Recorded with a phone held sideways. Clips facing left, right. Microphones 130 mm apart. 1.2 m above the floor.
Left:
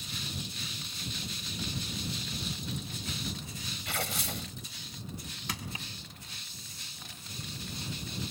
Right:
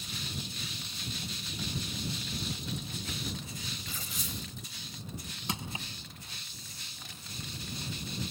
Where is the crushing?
25° right (ahead or behind).